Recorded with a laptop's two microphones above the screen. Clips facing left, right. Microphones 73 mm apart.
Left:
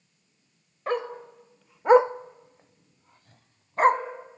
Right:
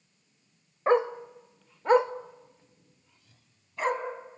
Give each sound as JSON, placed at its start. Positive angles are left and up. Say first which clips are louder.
{"t": 0.9, "sound": "a dog barking", "louder": "right 5 dB", "side_deg": -25, "distance_m": 1.0}